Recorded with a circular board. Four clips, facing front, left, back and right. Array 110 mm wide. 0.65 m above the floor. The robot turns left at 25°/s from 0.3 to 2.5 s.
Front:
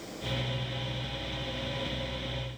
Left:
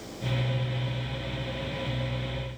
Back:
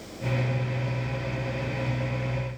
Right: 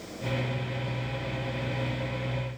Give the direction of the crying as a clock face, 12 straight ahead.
I don't hear crying.